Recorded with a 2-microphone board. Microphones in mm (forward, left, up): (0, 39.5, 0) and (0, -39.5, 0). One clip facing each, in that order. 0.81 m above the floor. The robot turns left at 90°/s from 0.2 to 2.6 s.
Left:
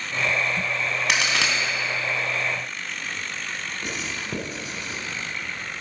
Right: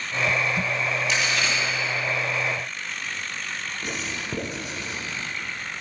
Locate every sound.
1.1 s a crack: 65° left (ahead or behind), 3 m; by 1.5 s 75° left (ahead or behind), 3 m
3.8 s writing: 5° right (ahead or behind), 3.5 m